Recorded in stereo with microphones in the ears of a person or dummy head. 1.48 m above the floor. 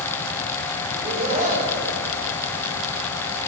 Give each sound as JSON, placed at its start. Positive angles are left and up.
{"t": 0.9, "sound": "laughter", "side_deg": -40, "distance_m": 5.0}